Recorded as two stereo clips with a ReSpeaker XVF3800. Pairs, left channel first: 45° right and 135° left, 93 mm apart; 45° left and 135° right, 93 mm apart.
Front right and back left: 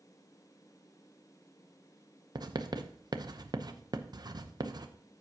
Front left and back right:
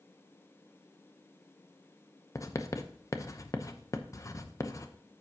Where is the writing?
95° left, 0.8 m.